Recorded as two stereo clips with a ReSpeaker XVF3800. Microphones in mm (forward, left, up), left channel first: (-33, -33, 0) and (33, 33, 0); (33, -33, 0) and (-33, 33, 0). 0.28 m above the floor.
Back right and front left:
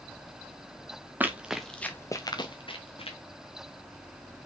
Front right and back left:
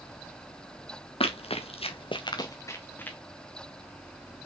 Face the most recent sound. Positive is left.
turn(degrees=-120)